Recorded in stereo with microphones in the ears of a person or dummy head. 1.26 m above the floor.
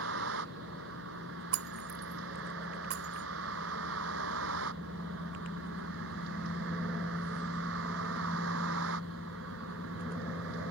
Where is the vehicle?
70° right (ahead or behind); by 10.7 s 75° right (ahead or behind).